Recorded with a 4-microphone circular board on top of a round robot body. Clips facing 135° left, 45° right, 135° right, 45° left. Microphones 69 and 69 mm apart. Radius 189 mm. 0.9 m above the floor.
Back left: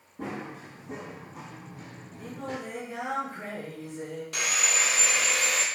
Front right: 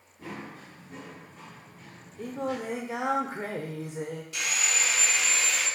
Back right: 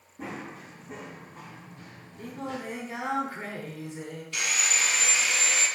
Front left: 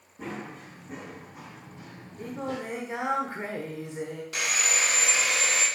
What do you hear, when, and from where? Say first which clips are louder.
0.2 s running footsteps: back left 4 dB, front left 1 dB; 140° left, 3.5 m; by 2.6 s 80° left, 1.4 m
2.2 s singing: front right 5 dB, front left 2 dB; 25° right, 0.9 m
4.3 s sawing: back left 2 dB, front left 1 dB; 100° left, 1.6 m